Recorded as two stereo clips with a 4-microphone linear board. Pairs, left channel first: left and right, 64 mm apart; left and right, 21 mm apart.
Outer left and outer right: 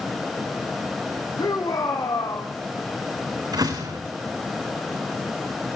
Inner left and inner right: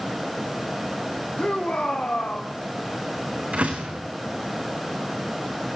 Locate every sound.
1.4 s a shout: 70° left (ahead or behind), 6 m
3.5 s a door slam: 80° right, 6.5 m